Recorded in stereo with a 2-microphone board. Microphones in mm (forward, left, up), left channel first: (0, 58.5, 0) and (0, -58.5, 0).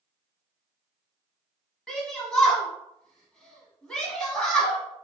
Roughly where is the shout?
Centre.